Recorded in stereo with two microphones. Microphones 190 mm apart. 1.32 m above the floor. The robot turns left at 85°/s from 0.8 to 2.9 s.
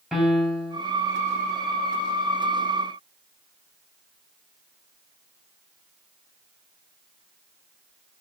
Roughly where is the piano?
Centre.